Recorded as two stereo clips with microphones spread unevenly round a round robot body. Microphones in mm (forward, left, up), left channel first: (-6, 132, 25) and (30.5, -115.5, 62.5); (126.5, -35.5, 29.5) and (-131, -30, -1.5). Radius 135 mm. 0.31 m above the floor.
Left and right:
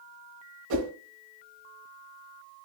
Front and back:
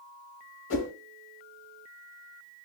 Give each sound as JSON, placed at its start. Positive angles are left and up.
{"t": 0.7, "sound": "a whoosh", "azimuth_deg": -45, "distance_m": 1.3}